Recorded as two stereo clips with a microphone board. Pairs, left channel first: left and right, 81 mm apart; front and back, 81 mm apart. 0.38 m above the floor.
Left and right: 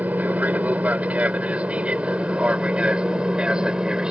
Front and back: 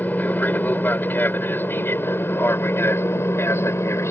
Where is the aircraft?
45° right; by 4.1 s 20° right.